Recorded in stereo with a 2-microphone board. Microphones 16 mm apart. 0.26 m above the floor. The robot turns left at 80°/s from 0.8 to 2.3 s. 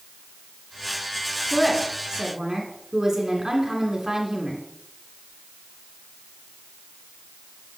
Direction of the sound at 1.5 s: 10° left.